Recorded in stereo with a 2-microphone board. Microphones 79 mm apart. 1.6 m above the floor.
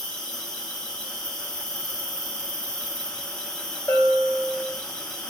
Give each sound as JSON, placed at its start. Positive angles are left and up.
{"t": 0.0, "sound": "an insect", "side_deg": 10, "distance_m": 1.5}
{"t": 3.9, "sound": "a bell", "side_deg": 35, "distance_m": 0.6}